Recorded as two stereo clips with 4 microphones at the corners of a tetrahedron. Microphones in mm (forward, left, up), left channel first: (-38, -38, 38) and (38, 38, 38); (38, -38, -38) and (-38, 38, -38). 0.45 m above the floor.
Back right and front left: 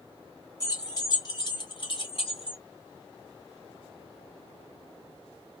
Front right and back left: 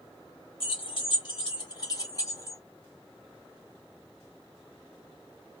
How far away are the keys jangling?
About 1.9 m.